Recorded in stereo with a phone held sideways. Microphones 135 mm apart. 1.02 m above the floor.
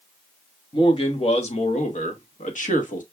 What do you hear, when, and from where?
0.7 s a man speaking: 45° left (ahead or behind), 1.8 m; by 3.0 s 75° left (ahead or behind), 1.6 m